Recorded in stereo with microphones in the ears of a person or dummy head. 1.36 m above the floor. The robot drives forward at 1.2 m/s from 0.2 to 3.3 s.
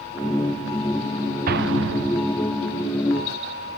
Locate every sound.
1.5 s an explosion: 50° right (ahead or behind); by 2.6 s 30° right (ahead or behind)